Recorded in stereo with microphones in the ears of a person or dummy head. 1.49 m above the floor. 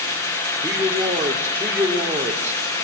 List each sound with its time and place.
0.6 s a man speaking: 10° right (ahead or behind), 5 m